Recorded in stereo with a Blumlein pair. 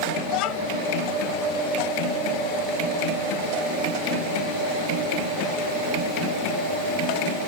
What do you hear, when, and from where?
0.3 s a child speaking: 40° left